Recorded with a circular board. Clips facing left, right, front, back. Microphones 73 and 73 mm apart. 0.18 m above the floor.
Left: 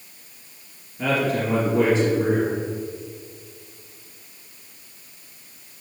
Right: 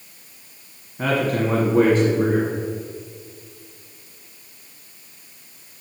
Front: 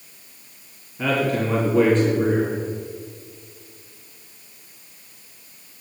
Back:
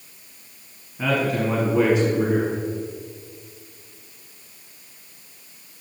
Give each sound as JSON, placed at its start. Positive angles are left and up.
{"t": 1.0, "sound": "a man speaking", "azimuth_deg": -100, "distance_m": 1.4}